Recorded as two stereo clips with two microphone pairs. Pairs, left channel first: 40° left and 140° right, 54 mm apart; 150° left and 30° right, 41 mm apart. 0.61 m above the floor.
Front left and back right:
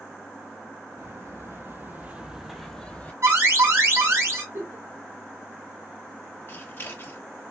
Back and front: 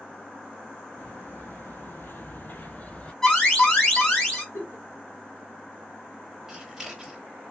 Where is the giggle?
Straight behind, 1.6 m.